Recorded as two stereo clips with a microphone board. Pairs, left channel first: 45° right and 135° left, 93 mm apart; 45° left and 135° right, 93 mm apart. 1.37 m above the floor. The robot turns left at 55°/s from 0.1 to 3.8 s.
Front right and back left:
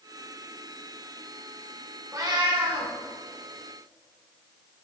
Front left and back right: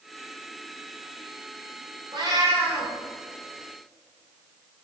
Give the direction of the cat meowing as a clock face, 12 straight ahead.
6 o'clock.